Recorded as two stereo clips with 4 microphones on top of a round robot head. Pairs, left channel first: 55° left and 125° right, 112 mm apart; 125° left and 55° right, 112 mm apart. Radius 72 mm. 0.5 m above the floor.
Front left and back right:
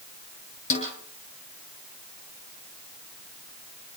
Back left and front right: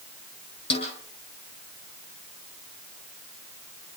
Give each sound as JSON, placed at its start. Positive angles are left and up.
{"t": 0.7, "sound": "a snare drum", "azimuth_deg": 85, "distance_m": 9.0}